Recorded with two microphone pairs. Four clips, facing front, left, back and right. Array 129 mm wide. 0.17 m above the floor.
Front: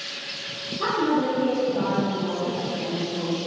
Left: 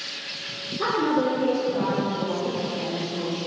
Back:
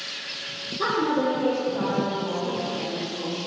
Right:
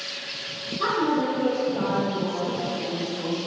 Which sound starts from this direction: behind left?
A woman speaking, at 0.8 s.